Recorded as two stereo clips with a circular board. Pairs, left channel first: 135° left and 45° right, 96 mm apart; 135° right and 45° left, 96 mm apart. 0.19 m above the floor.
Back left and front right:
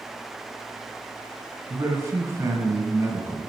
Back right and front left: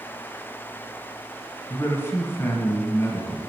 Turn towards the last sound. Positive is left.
turn(degrees=-85)